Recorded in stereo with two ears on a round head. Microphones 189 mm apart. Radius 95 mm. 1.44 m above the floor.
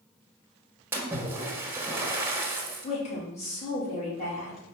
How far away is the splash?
About 1.0 m.